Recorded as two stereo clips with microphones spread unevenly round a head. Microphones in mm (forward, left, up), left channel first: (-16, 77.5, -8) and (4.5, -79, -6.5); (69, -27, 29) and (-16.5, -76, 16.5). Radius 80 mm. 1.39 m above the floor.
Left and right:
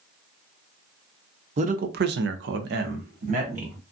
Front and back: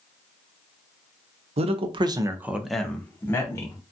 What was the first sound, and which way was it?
A man speaking, 130° right.